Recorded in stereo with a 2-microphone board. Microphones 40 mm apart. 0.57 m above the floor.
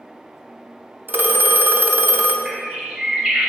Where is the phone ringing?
55° right (ahead or behind), 0.6 m.